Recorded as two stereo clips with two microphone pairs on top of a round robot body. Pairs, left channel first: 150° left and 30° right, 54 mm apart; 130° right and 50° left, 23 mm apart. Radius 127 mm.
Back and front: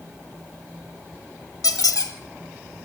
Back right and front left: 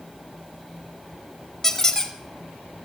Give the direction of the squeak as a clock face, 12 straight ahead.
7 o'clock.